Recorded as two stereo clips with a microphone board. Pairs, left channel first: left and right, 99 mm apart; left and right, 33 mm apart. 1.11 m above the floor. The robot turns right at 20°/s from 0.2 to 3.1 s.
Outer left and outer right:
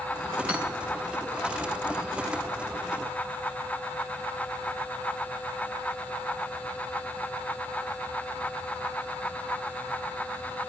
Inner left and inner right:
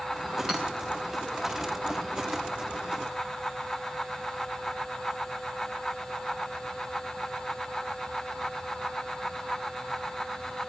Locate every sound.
0.5 s hammering: 15° right (ahead or behind), 3.5 m; by 0.6 s 10° right (ahead or behind), 3.5 m